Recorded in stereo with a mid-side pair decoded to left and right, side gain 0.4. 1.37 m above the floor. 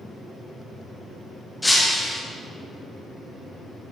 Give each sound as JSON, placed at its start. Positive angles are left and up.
{"t": 1.6, "sound": "breaking glass", "azimuth_deg": 10, "distance_m": 1.4}